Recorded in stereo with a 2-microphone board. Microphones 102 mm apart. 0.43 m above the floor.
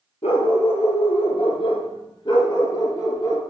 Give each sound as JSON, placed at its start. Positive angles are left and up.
{"t": 0.2, "sound": "a dog barking", "side_deg": 90, "distance_m": 2.0}